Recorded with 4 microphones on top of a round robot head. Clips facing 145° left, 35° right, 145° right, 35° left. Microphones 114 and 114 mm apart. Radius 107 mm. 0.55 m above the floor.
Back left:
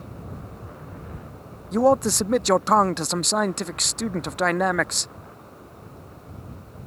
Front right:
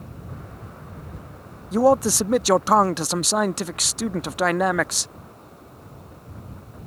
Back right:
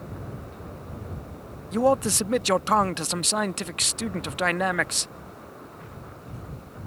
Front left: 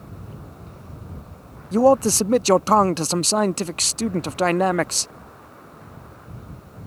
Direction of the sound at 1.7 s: 45° left.